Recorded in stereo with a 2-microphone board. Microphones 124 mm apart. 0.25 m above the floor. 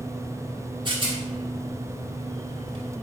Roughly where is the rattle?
Right.